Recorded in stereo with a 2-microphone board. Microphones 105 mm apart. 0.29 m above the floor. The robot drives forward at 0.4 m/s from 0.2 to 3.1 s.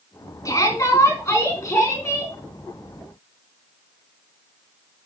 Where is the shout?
30° left (ahead or behind), 3.5 m; by 2.3 s 25° left (ahead or behind), 4 m.